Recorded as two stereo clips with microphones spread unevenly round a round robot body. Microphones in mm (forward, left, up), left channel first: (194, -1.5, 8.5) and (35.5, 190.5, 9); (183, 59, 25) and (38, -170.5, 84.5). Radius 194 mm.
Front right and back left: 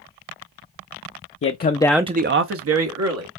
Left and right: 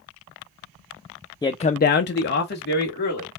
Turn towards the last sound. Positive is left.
turn(degrees=120)